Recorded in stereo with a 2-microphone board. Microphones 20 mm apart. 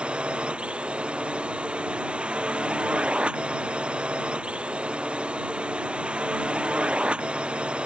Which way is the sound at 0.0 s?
65° right (ahead or behind).